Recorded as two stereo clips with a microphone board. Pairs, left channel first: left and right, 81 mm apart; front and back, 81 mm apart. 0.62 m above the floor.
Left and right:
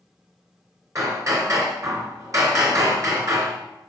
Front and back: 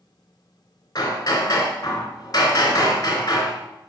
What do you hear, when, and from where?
0.9 s hammering: 40° right, 3.5 m